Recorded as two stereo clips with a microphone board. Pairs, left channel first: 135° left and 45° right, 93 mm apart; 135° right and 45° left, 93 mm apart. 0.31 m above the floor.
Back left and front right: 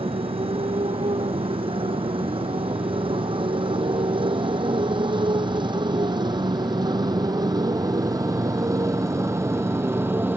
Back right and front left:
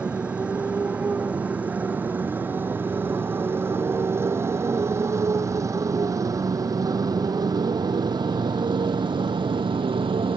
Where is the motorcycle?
35° right; by 10.4 s 20° left.